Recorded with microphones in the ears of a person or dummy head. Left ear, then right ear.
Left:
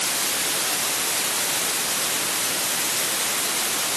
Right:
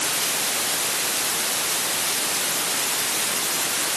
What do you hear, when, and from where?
Only background noise.